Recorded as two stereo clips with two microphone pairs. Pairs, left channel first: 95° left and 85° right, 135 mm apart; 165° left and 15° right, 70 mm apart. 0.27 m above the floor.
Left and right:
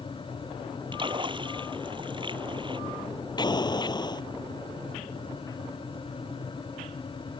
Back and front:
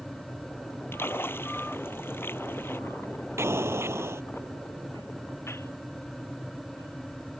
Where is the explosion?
35° left.